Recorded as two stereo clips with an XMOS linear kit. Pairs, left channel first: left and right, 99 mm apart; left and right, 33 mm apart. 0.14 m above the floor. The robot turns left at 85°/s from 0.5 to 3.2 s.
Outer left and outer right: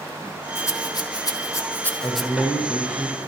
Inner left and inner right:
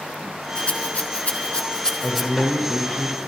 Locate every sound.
0.6 s a rattle: 25° left (ahead or behind), 1.3 m; by 2.3 s 5° right (ahead or behind), 1.3 m
2.0 s a man speaking: 105° left, 3 m; by 3.2 s 10° left, 3 m